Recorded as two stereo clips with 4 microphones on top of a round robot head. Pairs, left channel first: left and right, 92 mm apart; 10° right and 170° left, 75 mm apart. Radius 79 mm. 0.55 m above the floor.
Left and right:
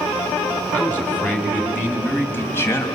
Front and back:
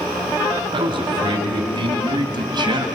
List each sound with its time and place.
0.7 s a man speaking: 160° left, 4.5 m; by 2.9 s 150° left, 3 m